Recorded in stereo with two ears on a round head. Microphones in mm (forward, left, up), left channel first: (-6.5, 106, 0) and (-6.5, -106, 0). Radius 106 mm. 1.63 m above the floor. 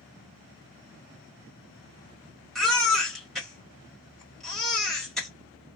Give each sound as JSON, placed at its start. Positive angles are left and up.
{"t": 2.5, "sound": "a baby crying", "side_deg": 0, "distance_m": 1.4}